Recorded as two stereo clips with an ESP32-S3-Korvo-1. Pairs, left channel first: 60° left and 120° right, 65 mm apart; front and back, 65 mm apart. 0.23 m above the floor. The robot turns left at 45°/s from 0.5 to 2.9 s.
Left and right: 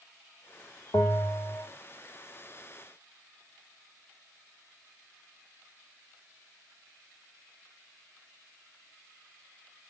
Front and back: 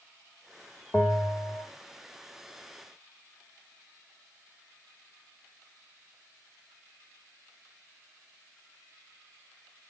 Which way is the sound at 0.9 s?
65° left.